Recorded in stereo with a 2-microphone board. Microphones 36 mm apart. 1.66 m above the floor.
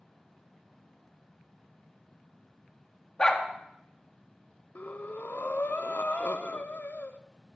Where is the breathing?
55° left (ahead or behind), 0.7 m.